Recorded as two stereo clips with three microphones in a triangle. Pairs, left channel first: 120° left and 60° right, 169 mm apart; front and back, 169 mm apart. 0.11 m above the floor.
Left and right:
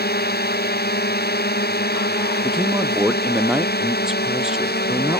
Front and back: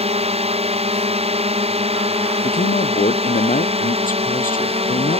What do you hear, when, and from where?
0.0 s a drone: 130° left
2.4 s a man speaking: 25° left